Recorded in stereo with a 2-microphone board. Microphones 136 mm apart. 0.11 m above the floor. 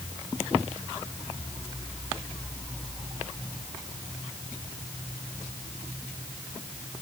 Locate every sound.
Only background noise.